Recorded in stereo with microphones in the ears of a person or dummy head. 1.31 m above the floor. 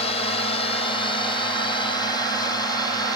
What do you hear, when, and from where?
0.0 s a drone: 35° left (ahead or behind); by 3.2 s 20° left (ahead or behind)